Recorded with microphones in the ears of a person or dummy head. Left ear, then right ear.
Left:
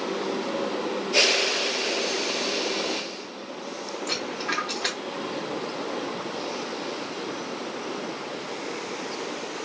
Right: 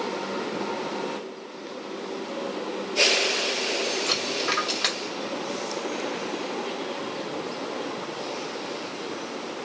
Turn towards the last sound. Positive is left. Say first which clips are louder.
# right 3 dB
turn(degrees=-50)  # may be behind; listen again after turning